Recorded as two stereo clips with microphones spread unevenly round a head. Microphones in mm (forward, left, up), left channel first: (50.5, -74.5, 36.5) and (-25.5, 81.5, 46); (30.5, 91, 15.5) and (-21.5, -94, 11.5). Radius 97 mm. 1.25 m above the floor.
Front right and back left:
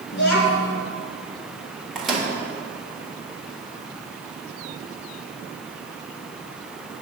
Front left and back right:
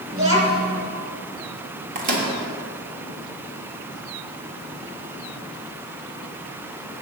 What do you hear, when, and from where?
0.1 s a child speaking: 45° right, 2.5 m
1.9 s a microwave: 155° right, 1.5 m